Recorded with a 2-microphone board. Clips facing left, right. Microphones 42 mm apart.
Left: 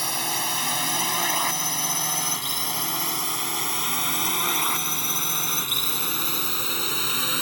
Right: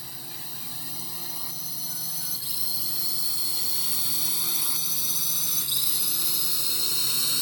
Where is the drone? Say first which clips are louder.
Left 16 dB; 70° left (ahead or behind); by 7.4 s 40° left (ahead or behind).